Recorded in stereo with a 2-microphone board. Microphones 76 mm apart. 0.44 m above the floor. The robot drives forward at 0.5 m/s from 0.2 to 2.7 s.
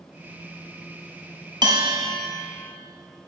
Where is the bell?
80° right, 0.9 m; by 2.1 s 85° right, 0.9 m.